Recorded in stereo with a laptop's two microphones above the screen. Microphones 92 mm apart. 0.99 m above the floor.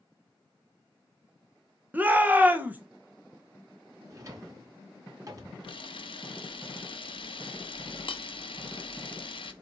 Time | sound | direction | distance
1.9 | a shout | 20° right (ahead or behind) | 0.6 m
4.1 | a drawer | 40° right (ahead or behind) | 1.1 m
5.6 | a camera shutter | 65° left (ahead or behind) | 0.6 m